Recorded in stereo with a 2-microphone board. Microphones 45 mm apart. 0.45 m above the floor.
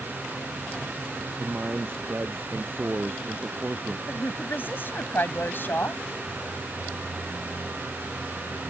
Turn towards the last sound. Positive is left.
turn(degrees=50)  # may be behind; listen again after turning